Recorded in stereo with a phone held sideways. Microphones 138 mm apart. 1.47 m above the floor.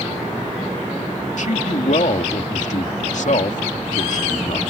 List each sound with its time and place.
1.4 s a man speaking: 65° left (ahead or behind)